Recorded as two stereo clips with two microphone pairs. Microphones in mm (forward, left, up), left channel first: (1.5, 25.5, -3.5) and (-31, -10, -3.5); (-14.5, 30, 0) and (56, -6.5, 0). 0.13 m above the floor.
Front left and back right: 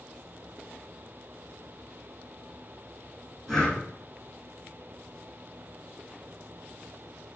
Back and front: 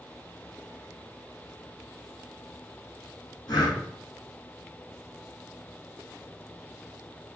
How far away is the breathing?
About 4.5 m.